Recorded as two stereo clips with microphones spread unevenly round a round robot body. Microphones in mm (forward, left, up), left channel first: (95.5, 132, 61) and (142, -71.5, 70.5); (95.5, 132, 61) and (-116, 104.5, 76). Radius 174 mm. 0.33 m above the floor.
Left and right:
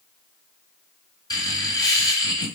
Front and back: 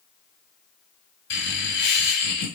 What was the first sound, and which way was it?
Laughter, 35° left.